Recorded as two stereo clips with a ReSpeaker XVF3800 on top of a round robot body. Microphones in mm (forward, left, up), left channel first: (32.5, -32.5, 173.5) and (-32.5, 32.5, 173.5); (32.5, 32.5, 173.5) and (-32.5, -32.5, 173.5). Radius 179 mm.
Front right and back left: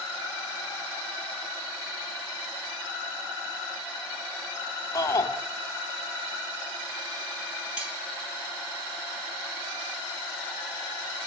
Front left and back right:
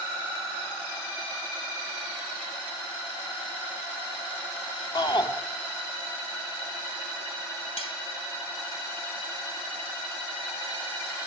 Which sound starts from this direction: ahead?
A shout, at 5.0 s.